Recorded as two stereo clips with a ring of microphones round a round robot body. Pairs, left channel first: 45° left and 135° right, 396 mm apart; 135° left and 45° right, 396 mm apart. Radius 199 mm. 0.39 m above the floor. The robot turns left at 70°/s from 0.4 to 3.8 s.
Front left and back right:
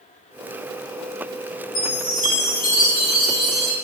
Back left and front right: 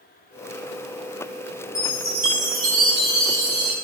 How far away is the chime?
About 8 m.